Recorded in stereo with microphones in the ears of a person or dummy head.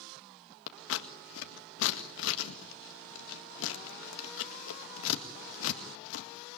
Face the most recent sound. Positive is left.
turn(degrees=80)